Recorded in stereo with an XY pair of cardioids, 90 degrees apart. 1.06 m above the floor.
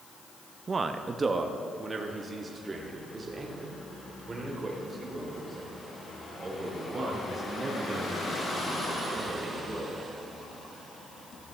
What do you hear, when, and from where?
0.7 s a man speaking: 40° right, 0.7 m; by 10.0 s 30° right, 6.5 m